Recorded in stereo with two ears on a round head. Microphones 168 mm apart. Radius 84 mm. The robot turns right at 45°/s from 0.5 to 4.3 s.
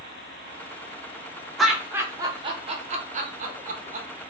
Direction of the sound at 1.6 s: Centre (ahead or behind).